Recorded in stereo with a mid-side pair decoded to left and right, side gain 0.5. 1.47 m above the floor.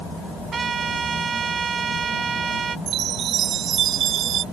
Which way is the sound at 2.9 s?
65° right.